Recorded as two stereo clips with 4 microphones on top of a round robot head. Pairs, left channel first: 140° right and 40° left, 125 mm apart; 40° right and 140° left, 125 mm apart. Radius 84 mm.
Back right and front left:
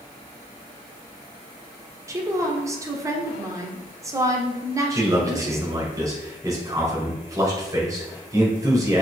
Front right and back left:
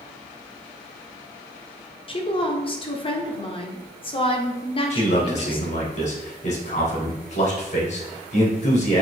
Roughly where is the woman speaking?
Ahead.